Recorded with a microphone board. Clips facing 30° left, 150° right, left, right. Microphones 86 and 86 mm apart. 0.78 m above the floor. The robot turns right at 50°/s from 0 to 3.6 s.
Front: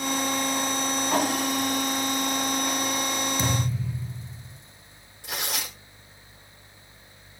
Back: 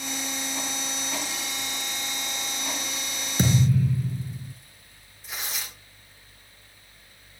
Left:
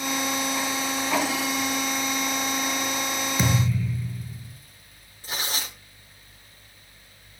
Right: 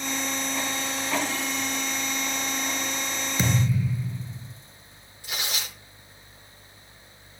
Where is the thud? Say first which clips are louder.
Back 5 dB, right 2 dB; 175° left, 4 m; by 4.5 s 175° right, 4 m.